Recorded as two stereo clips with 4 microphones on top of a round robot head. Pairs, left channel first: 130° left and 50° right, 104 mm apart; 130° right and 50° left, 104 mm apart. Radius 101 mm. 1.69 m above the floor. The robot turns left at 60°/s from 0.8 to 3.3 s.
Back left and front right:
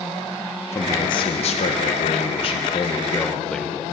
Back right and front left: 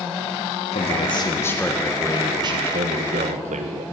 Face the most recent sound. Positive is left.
turn(degrees=50)